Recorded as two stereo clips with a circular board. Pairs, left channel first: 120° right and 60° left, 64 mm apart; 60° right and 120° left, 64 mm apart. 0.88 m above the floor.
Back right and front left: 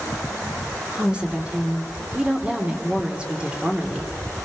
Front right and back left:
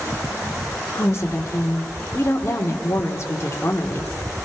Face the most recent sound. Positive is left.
turn(degrees=-15)